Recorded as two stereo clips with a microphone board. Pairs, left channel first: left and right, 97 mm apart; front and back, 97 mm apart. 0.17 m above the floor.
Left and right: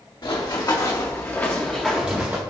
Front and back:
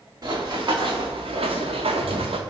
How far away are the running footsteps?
About 1.4 m.